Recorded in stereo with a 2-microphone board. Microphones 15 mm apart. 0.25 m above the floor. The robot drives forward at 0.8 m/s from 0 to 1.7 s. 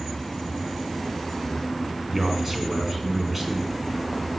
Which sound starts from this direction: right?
A man speaking, at 2.1 s.